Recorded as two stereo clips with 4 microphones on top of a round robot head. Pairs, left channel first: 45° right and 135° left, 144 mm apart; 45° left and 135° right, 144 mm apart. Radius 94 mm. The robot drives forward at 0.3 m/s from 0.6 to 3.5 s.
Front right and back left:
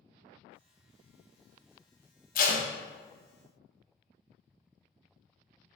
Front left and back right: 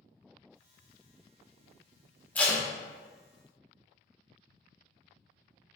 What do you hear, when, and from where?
2.4 s tape being pulled: 35° right, 0.6 m; by 2.6 s 40° right, 0.5 m